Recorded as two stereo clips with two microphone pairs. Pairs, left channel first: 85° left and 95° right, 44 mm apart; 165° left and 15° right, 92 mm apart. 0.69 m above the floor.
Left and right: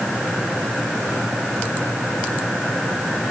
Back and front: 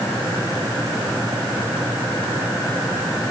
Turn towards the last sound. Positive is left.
No sound to turn to.